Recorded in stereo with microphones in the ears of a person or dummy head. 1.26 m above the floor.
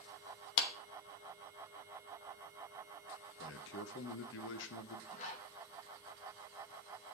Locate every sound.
0.6 s a clap: 75° left (ahead or behind), 1.1 m
3.4 s a man speaking: 70° left (ahead or behind), 1.1 m
5.1 s a zipper: 45° left (ahead or behind), 1.7 m